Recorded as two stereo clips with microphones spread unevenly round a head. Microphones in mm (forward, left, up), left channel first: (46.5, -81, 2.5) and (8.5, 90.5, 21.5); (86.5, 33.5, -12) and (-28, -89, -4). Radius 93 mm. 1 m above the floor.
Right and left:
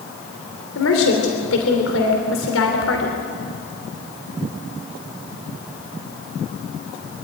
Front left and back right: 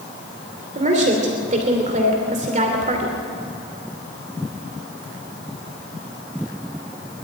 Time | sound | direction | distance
0.8 | a woman speaking | 85° right | 3 m